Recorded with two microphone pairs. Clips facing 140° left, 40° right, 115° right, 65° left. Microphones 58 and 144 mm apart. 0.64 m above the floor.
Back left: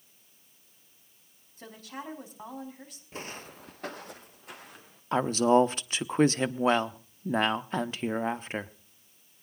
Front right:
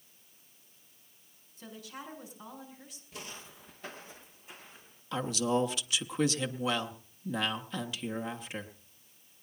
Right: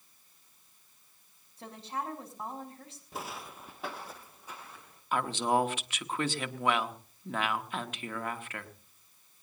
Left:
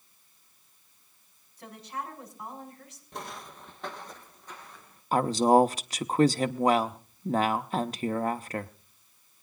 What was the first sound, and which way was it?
A woman speaking, straight behind.